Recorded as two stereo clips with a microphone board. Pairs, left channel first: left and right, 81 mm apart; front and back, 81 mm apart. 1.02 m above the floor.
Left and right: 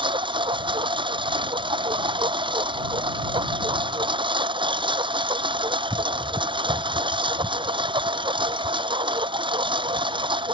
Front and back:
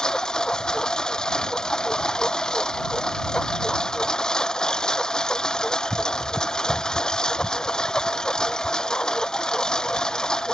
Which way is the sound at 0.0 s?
80° right.